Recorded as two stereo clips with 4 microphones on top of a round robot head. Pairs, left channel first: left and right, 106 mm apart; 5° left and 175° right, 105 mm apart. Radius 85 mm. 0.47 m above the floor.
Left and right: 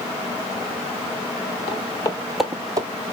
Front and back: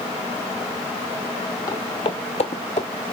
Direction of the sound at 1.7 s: 65° left.